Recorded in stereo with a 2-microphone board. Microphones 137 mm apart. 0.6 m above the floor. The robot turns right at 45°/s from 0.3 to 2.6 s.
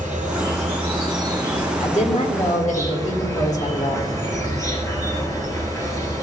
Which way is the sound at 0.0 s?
75° right.